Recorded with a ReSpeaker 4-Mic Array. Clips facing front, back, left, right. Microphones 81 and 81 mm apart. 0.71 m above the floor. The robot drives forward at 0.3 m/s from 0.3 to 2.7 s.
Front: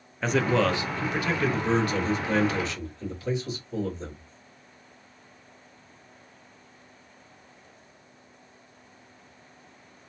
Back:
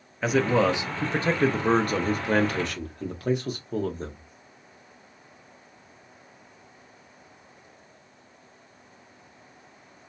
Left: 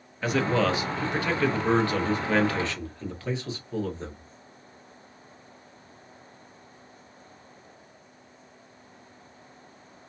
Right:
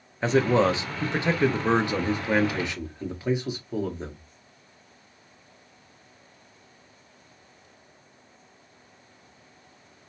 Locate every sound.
0.2 s a man speaking: 100° right, 0.5 m; by 4.2 s 165° right, 0.9 m